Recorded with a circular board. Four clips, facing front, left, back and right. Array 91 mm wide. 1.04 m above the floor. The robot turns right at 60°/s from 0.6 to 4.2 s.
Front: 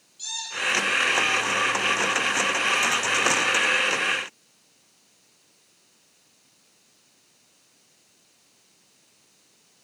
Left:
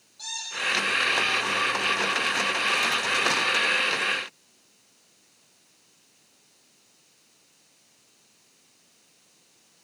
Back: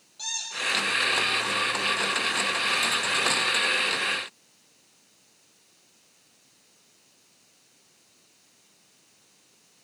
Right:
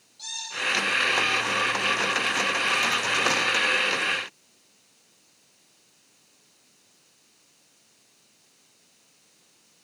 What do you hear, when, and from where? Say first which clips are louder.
0.2 s a squeak: even, front 3 dB; 170° left, 10 m; by 0.8 s 175° right, 10 m